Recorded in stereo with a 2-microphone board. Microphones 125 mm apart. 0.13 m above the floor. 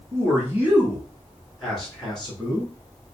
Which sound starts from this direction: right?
A man speaking, at 0.1 s.